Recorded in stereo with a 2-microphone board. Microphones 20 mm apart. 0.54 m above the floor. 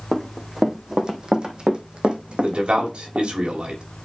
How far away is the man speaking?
About 2.5 m.